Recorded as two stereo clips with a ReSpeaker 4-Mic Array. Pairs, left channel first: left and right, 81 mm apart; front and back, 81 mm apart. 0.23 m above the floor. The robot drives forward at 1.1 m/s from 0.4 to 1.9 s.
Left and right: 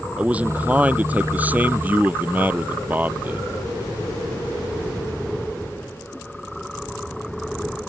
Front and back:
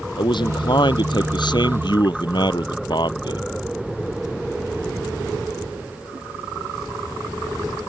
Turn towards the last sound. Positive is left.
turn(degrees=-20)